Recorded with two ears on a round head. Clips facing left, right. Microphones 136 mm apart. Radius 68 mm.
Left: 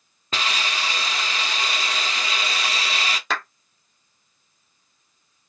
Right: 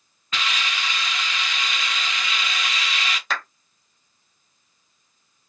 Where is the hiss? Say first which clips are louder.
Left 2 dB; 30° left (ahead or behind), 0.5 m.